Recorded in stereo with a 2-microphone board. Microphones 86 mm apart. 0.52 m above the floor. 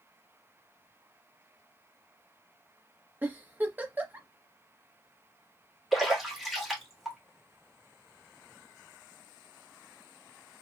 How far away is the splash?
About 1.1 m.